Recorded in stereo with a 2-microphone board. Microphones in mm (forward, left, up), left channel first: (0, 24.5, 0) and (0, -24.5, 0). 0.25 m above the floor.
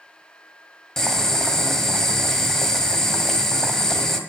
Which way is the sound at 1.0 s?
10° left (ahead or behind).